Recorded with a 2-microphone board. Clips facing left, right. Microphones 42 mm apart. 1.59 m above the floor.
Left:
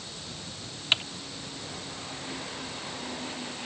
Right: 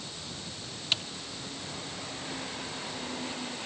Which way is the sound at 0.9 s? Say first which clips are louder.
Left 5 dB; 40° left (ahead or behind).